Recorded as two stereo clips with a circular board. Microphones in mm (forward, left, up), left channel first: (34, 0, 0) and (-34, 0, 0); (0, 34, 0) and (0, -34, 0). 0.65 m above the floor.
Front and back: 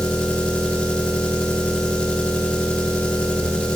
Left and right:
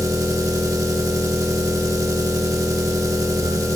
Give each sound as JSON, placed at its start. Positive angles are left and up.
{"t": 0.0, "sound": "an engine running", "azimuth_deg": -75, "distance_m": 1.1}